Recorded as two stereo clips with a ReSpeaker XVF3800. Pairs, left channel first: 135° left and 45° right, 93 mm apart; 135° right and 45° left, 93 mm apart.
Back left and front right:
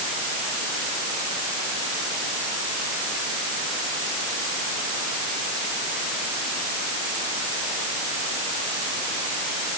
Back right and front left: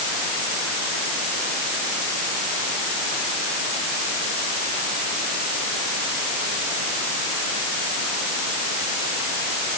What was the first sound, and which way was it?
Only background noise.